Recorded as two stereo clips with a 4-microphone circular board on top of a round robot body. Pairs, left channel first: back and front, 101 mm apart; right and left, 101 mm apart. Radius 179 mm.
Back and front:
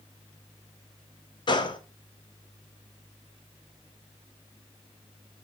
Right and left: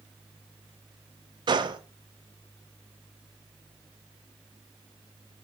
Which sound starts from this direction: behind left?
A gunshot, at 1.5 s.